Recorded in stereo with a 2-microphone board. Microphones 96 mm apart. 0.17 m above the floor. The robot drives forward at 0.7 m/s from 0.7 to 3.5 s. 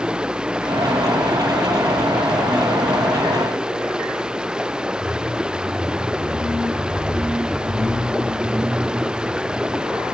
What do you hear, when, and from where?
0.0 s running water: 10° right (ahead or behind)